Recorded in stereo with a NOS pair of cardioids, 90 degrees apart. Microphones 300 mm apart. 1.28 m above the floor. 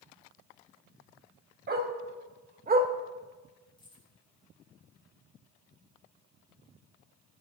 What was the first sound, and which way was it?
A dog barking, 35° right.